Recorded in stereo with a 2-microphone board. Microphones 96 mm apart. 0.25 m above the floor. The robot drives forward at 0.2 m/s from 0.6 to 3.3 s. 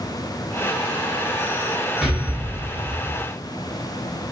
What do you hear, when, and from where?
2.0 s an explosion: centre (ahead or behind), 1.6 m